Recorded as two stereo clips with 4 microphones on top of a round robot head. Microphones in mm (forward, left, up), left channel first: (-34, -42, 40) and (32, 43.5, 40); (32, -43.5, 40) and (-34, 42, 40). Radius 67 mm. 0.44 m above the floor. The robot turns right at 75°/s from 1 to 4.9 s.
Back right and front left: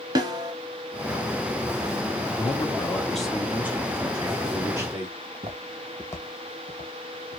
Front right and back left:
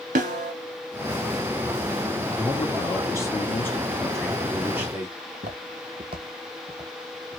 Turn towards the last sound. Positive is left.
turn(degrees=-155)